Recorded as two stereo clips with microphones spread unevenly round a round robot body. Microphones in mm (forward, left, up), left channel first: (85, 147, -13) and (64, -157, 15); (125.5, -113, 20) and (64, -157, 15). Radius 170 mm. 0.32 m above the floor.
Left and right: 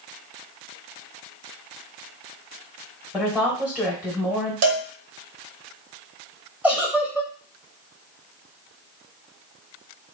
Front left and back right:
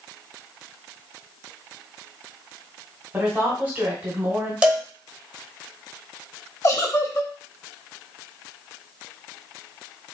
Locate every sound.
3.1 s a woman speaking: 175° left, 1.1 m
4.6 s a cowbell: 75° right, 1.0 m
6.6 s a giggle: 5° right, 0.9 m